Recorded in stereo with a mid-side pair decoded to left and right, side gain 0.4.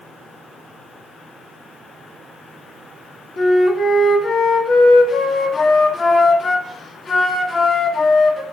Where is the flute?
40° left, 1.6 m.